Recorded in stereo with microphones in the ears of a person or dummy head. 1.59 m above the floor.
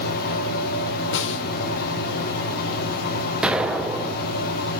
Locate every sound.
0.0 s a fan: 50° left (ahead or behind), 1.6 m
1.1 s a snare drum: 60° left (ahead or behind), 0.9 m
3.4 s an explosion: 5° right (ahead or behind), 0.6 m